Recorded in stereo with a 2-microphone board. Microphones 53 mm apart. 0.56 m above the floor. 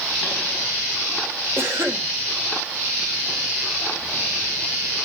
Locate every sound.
1.6 s a cough: 45° right (ahead or behind), 2 m